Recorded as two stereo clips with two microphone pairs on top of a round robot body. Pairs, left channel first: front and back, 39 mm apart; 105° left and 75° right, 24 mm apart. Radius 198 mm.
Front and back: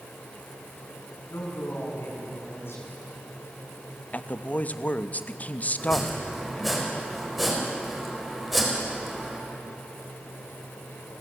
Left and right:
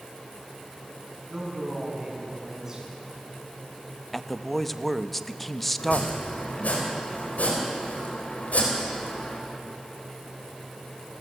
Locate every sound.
1.3 s a man speaking: 5° right, 6.5 m
4.1 s a man speaking: 20° left, 1.2 m
5.8 s chopping: 90° left, 4 m